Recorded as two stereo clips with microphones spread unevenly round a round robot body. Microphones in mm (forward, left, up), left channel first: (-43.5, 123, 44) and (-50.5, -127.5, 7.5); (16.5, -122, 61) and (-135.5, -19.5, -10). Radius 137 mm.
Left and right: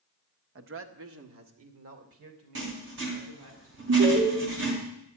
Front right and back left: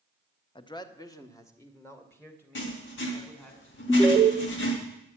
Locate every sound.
0.6 s a man speaking: 110° right, 1.1 m; by 3.5 s 115° right, 4.5 m
2.5 s writing: 45° right, 3 m
3.9 s an alarm: 115° right, 1.9 m